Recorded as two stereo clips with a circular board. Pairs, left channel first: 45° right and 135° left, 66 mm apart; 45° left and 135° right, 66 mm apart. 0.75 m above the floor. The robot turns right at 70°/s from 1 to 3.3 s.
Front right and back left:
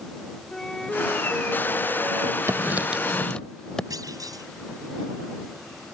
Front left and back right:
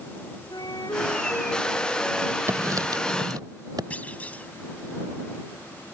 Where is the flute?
40° left; by 2.4 s 135° left.